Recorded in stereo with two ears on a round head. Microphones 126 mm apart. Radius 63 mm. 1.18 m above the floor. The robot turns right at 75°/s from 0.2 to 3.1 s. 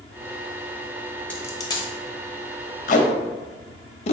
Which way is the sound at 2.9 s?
55° left (ahead or behind).